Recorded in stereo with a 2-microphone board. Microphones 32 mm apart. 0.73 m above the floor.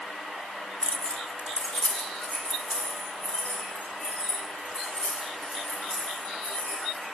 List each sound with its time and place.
0.8 s keys jangling: 20° left (ahead or behind), 0.6 m; by 7.0 s 55° left (ahead or behind), 7 m